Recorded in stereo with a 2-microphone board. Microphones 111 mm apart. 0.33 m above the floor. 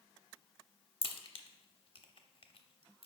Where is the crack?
55° left (ahead or behind), 0.7 m.